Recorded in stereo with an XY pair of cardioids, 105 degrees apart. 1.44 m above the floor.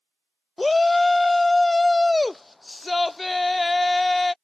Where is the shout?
20° left.